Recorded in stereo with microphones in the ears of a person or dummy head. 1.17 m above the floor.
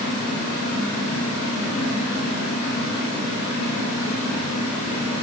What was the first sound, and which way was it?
Only background noise.